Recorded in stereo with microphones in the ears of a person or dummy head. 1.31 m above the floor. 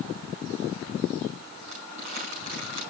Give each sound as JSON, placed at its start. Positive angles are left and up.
{"t": 1.7, "sound": "crumpling", "side_deg": -60, "distance_m": 5.5}